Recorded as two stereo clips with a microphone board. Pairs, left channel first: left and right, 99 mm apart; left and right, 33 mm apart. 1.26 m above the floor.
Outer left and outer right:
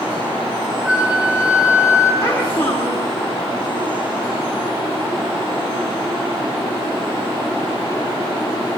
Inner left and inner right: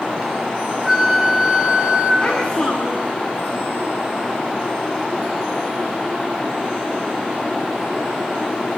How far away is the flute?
About 10 m.